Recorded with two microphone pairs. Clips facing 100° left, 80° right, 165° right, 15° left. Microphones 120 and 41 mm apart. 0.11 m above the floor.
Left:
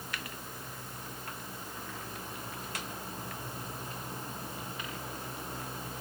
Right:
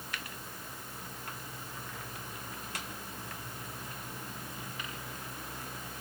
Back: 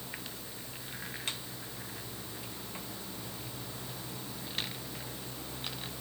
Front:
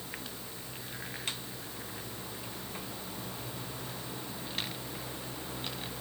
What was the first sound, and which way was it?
Only background noise.